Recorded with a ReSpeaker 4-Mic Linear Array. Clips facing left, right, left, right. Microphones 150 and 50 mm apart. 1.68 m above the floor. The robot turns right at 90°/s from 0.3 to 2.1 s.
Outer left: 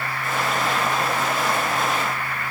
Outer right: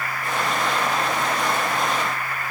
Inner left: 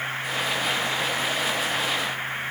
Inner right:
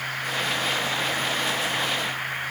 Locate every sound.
Only background noise.